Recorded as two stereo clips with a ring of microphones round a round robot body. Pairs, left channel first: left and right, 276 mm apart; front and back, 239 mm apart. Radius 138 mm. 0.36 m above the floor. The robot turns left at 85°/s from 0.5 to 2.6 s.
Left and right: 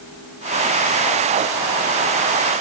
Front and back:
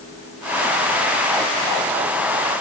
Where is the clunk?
I don't hear a clunk.